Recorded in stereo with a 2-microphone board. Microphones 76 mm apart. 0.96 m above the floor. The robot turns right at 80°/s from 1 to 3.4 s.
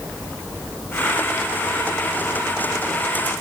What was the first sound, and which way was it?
Only background noise.